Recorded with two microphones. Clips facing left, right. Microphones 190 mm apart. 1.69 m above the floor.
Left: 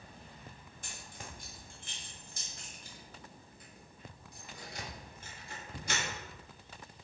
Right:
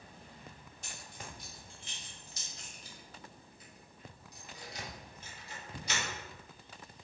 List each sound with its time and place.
0.8 s keys jangling: 50° left (ahead or behind), 1.2 m